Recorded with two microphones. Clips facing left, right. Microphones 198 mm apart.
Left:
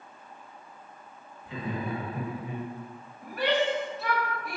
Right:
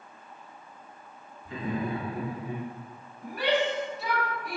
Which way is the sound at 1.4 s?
50° right (ahead or behind).